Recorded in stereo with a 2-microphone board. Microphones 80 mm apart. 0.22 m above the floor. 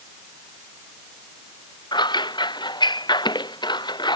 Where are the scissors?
70° left (ahead or behind).